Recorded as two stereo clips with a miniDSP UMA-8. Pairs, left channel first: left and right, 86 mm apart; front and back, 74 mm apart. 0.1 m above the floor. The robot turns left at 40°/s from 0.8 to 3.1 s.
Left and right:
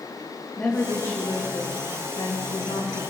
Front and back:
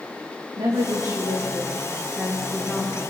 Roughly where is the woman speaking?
Behind.